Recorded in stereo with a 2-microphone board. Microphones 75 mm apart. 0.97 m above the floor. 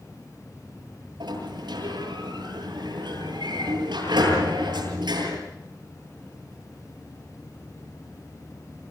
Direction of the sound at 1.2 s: 80° right.